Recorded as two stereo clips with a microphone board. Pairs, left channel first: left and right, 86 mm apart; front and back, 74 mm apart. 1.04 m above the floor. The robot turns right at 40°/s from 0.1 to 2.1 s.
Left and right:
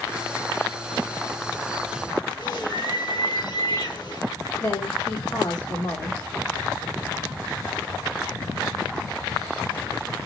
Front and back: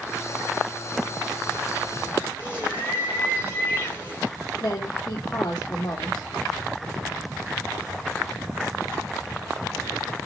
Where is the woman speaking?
45° left, 2.5 m.